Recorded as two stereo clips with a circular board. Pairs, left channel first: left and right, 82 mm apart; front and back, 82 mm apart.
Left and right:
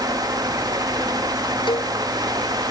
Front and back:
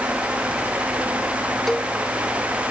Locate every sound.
1.7 s a cowbell: 85° left